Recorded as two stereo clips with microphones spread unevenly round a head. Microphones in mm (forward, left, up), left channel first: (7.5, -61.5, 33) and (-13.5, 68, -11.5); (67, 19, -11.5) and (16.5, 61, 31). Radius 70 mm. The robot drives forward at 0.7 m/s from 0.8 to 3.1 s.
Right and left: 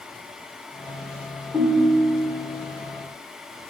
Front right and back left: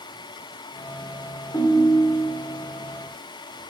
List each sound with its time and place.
1.5 s a ringtone: 15° left, 1.9 m; by 2.3 s 25° left, 1.4 m